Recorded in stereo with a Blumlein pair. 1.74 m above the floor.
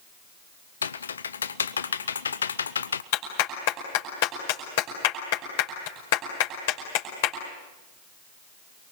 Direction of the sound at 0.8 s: 70° left.